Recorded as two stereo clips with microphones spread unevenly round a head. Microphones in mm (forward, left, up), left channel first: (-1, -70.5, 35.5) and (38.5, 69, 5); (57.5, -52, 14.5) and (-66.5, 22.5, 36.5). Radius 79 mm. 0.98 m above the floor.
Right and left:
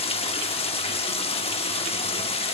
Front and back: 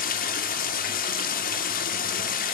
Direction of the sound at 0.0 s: 55° right.